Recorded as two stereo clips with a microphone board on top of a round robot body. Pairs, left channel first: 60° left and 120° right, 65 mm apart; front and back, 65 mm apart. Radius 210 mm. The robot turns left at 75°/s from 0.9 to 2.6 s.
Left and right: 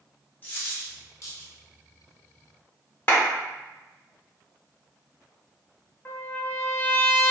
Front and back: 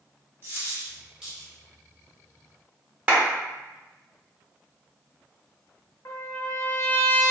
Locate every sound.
0.4 s a dropped coin: 130° left, 0.8 m; by 1.5 s 85° left, 0.8 m
3.1 s a clap: 115° left, 1.6 m
6.0 s a trumpet: 15° left, 1.0 m